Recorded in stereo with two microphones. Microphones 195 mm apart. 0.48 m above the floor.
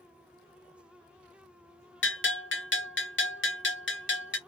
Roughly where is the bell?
Left.